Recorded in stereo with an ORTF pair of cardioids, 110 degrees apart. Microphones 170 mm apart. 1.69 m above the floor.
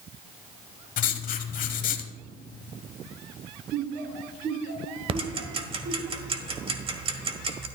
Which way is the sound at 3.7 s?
65° right.